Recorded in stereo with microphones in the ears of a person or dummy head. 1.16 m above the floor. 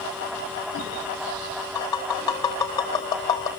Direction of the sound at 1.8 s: 20° left (ahead or behind).